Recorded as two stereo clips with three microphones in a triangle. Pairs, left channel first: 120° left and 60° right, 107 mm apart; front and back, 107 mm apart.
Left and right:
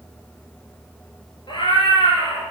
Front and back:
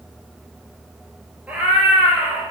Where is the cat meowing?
105° left, 0.9 m.